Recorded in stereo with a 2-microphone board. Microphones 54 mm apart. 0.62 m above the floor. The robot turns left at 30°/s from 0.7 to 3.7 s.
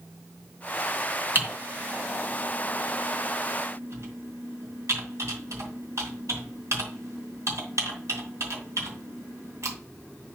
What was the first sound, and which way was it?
Typing on a keyboard, 40° right (ahead or behind).